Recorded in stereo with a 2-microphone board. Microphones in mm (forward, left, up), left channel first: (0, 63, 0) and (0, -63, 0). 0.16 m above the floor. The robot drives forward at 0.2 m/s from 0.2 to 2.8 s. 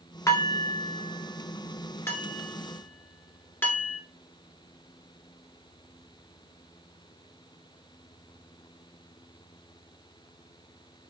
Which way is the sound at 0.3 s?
25° left (ahead or behind).